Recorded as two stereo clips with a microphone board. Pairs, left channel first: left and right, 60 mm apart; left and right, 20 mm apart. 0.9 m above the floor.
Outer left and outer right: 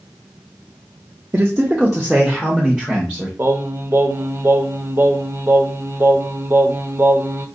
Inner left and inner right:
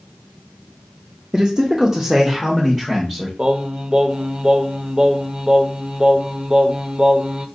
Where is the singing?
40° right (ahead or behind), 0.6 m.